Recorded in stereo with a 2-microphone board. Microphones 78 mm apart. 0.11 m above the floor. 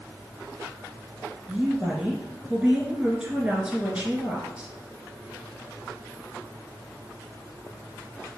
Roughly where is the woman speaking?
Centre.